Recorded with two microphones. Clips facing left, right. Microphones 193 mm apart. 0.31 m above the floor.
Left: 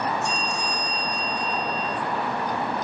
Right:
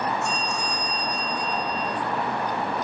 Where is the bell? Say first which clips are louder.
Even; 70° left (ahead or behind), 5 m.